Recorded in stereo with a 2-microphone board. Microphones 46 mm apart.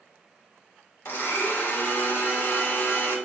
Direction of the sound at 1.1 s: 55° left (ahead or behind).